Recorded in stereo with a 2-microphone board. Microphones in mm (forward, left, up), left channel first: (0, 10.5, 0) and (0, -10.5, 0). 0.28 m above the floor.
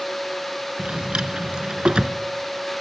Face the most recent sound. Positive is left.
turn(degrees=-55)  # may be behind; listen again after turning